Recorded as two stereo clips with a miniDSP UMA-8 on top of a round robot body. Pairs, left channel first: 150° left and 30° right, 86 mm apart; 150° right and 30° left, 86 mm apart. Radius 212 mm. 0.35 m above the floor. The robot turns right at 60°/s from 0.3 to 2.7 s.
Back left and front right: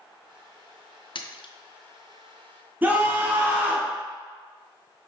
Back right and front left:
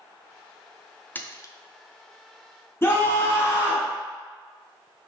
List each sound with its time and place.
1.1 s a splash: 145° left, 0.5 m; by 1.5 s 165° left, 0.5 m
2.8 s a scream: 95° right, 1.6 m